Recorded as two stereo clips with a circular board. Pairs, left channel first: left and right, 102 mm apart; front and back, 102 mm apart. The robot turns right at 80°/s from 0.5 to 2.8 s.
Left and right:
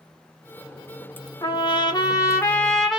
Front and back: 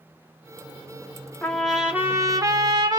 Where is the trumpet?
70° left, 0.9 m; by 3.0 s straight behind, 0.9 m.